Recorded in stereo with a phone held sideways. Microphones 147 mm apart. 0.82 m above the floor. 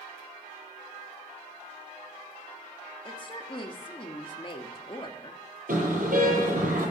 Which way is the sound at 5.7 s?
75° right (ahead or behind).